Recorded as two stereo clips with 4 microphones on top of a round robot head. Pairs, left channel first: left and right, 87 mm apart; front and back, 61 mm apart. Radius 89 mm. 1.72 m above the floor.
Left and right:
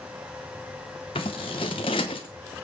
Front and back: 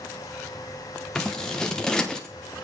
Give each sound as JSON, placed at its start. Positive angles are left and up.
{"t": 1.1, "sound": "scissors", "azimuth_deg": 70, "distance_m": 0.9}